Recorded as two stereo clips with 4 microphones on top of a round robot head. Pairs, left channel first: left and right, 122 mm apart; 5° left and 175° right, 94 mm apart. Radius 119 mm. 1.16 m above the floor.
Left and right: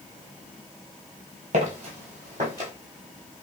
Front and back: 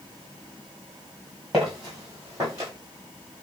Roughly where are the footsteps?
Right.